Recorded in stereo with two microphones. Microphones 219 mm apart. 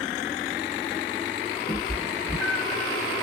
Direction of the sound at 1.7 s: Centre (ahead or behind).